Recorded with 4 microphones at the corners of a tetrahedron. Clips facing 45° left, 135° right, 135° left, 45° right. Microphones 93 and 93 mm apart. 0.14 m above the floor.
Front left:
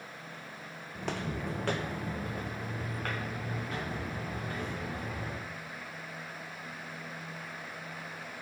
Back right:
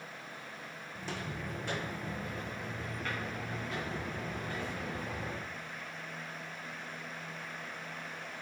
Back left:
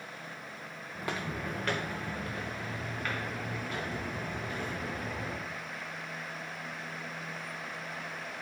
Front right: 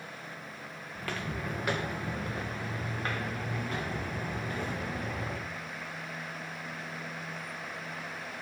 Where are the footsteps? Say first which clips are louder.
Front left 5 dB, back left 1 dB; 70° left, 0.5 m; by 5.5 s 5° right, 2.5 m.